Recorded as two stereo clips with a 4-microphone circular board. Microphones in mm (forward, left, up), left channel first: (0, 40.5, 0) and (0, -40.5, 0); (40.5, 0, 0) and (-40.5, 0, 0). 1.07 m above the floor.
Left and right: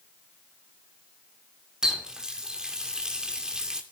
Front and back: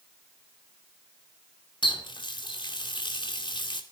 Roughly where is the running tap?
Ahead.